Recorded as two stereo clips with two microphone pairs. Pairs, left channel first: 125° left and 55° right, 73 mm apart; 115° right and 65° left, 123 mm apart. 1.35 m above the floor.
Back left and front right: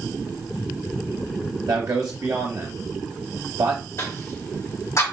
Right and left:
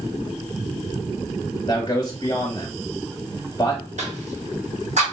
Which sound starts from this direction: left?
A cough, at 4.0 s.